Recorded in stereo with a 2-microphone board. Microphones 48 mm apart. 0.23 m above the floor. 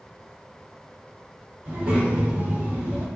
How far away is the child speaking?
About 1.5 m.